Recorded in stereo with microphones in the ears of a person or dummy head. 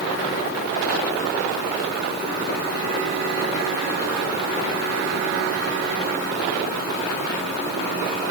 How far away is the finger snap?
No finger snap in this recording.